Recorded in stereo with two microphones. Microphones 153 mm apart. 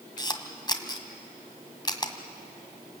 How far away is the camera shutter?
About 1.7 m.